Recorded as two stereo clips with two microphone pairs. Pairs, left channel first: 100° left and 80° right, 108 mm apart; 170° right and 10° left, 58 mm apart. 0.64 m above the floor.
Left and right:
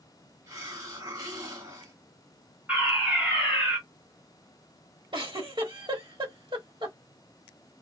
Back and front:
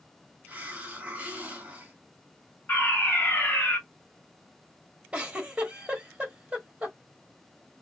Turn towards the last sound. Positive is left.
turn(degrees=-55)